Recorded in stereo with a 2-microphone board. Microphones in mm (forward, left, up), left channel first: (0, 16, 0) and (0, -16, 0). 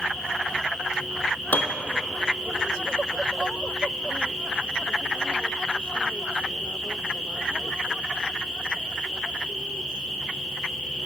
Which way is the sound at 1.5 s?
70° left (ahead or behind).